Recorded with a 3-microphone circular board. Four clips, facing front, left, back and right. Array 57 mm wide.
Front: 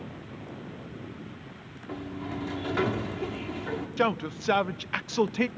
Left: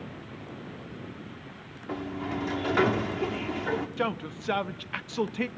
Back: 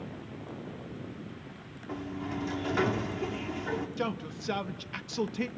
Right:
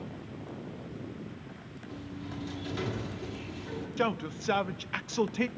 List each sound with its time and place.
1.9 s a sliding door: 90° left, 1.4 m
4.0 s a man speaking: straight ahead, 0.5 m